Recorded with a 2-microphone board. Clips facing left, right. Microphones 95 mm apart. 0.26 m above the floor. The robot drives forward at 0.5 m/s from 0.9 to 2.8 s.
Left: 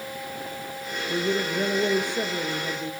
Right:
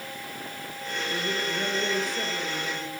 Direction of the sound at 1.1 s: 30° left (ahead or behind).